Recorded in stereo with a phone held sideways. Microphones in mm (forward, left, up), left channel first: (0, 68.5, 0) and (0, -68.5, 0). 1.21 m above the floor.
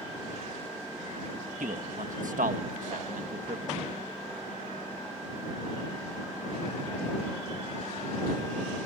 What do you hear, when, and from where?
1.6 s a man speaking: 80° right